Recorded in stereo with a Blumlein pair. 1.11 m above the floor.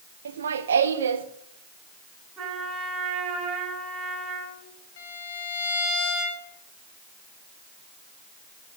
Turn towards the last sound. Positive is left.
turn(degrees=55)